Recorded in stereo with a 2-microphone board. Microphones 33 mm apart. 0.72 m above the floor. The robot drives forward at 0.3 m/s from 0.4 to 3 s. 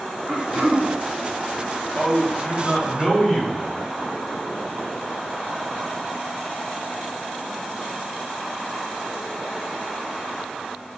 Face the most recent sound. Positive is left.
turn(degrees=45)  # may be behind; listen again after turning